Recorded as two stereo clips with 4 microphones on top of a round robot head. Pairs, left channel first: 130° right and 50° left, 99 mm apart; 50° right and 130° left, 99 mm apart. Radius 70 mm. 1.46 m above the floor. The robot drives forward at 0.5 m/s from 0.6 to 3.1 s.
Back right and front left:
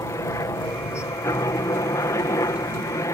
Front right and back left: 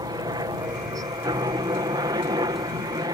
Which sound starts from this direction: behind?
A helicopter, at 0.0 s.